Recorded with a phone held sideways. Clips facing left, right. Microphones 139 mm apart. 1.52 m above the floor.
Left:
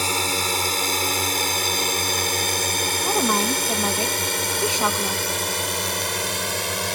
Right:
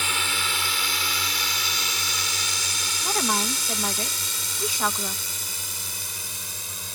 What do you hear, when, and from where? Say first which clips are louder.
0.0 s a drone: left 6 dB; 40° left (ahead or behind); by 7.0 s 80° left
3.0 s a woman speaking: left 4 dB; 25° left (ahead or behind)